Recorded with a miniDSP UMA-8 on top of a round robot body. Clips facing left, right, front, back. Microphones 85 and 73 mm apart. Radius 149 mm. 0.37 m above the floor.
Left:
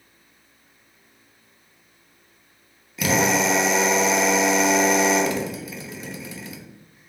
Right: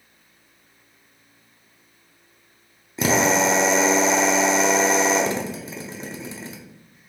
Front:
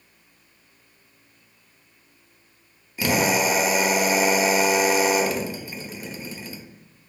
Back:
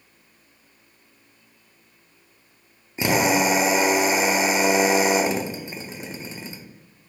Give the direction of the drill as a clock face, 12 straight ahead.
4 o'clock.